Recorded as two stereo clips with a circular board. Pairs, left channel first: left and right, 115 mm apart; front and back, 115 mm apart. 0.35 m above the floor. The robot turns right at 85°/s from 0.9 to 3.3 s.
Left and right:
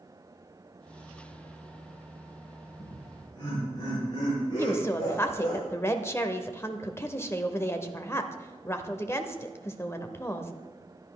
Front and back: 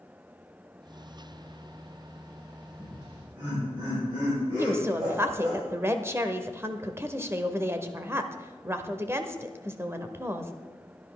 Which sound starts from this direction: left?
Laughter, at 2.8 s.